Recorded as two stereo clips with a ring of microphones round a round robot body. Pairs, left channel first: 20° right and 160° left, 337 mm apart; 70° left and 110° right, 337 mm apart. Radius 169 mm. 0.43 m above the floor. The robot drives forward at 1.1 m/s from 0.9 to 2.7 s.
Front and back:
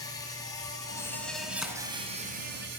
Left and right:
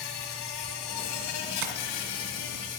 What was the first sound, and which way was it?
An insect, 55° left.